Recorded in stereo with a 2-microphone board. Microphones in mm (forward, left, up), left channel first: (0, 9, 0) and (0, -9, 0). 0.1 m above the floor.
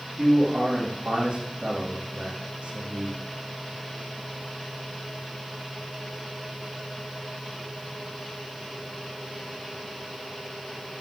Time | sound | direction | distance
0.2 | a man speaking | 60° right (ahead or behind) | 4 m